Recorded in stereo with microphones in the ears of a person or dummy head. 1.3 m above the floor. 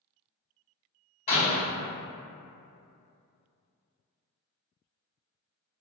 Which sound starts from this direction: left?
A door slam, at 1.3 s.